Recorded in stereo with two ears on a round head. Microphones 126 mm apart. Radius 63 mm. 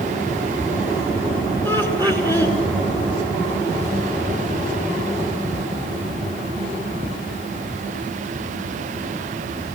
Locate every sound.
1.6 s laughter: 20° left (ahead or behind), 6.5 m